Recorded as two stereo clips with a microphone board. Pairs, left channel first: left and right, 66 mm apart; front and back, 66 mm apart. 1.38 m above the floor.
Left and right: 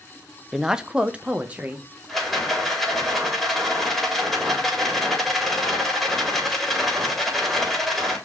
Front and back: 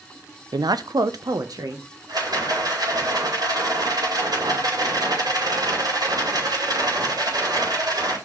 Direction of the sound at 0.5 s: 175° right.